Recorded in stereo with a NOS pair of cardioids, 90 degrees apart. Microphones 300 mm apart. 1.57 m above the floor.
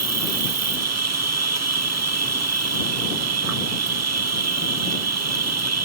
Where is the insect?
55° right.